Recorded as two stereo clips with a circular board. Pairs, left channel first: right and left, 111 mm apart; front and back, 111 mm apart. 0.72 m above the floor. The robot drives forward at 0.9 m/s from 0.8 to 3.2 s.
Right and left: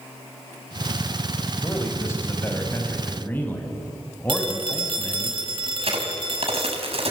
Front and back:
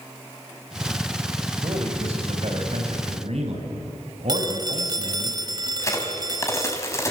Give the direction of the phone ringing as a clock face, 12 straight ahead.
8 o'clock.